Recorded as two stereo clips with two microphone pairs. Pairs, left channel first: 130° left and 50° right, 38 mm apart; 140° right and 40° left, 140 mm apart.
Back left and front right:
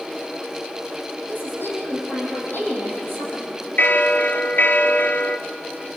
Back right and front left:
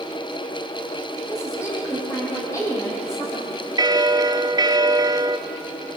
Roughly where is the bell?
Left.